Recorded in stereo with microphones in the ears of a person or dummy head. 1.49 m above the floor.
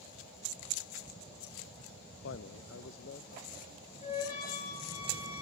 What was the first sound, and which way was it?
A man speaking, 65° left (ahead or behind).